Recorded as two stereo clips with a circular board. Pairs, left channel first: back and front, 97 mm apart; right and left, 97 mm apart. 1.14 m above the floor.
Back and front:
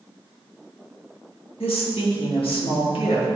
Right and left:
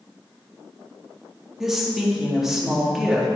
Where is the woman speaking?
175° left, 1.8 m.